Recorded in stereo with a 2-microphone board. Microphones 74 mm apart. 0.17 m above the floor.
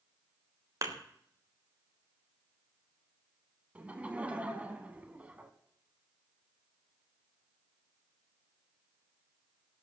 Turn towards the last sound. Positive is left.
turn(degrees=-20)  # may be behind; listen again after turning